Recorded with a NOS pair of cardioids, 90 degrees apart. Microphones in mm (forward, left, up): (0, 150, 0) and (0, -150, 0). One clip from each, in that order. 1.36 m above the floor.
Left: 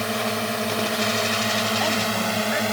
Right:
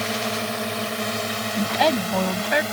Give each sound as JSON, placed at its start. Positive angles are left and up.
{"t": 0.0, "sound": "a drone", "azimuth_deg": 5}
{"t": 1.6, "sound": "a woman speaking", "azimuth_deg": -70}